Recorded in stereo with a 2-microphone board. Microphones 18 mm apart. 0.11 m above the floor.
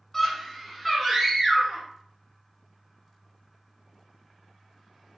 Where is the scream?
20° left (ahead or behind), 1.3 m; by 1.9 s 15° right (ahead or behind), 1.3 m.